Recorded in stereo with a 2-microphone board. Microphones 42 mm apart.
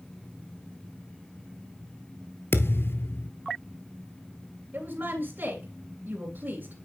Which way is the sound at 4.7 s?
45° right (ahead or behind).